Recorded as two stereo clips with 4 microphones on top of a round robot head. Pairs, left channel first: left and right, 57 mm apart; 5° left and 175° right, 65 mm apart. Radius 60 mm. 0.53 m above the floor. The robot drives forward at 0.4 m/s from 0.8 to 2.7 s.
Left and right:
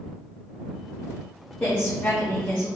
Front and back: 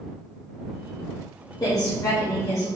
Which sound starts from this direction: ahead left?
A woman speaking, at 1.6 s.